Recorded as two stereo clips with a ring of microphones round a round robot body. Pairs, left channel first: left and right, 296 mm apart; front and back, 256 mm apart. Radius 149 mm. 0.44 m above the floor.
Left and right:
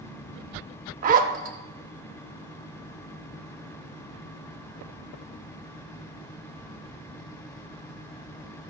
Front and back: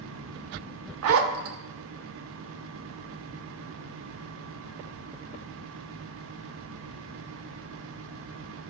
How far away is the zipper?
About 0.5 m.